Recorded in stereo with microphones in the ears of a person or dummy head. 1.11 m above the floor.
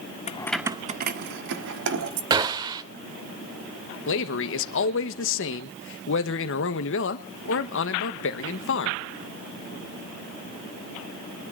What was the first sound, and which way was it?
Keys jangling, 30° left (ahead or behind).